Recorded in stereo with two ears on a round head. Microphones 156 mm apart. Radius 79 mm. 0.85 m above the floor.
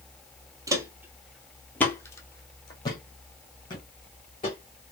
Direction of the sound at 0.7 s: 20° right (ahead or behind).